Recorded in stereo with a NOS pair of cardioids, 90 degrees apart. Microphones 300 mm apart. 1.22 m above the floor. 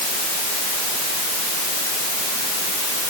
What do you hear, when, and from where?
Only background noise.